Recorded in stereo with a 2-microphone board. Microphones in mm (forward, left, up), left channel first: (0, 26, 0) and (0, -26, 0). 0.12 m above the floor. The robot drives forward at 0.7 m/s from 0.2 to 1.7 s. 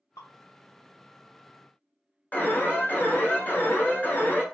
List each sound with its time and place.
0.2 s dripping: 80° left, 2.0 m; by 0.3 s 85° left, 2.0 m
2.3 s an alarm: 35° left (ahead or behind), 1.1 m